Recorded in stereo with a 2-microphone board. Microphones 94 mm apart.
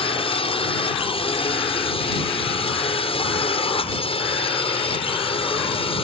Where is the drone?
70° left (ahead or behind).